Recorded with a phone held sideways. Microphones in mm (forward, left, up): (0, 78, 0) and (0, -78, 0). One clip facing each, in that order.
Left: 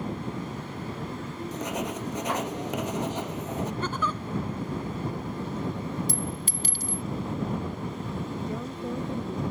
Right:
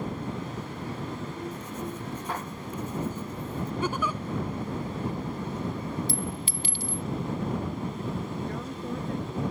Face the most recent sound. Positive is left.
turn(degrees=15)  # may be behind; listen again after turning